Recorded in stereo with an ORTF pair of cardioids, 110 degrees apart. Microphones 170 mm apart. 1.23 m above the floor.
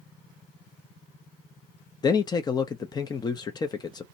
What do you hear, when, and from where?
2.0 s a man speaking: 25° left, 0.6 m